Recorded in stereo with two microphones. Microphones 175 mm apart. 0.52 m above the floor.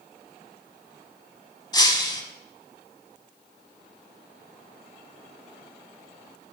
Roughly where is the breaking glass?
Left.